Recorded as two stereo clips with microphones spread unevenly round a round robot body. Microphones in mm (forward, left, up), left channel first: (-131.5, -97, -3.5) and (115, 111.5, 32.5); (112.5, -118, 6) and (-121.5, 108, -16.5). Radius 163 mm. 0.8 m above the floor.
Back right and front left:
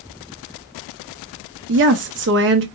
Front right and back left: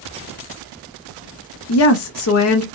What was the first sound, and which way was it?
A woman speaking, 10° right.